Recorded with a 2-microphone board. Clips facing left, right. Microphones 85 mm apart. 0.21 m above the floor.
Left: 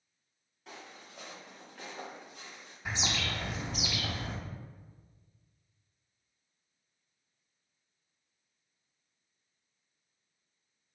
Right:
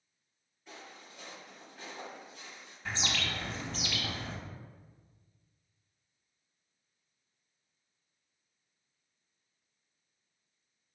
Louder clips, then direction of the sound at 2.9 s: Left 1 dB; 15° left (ahead or behind).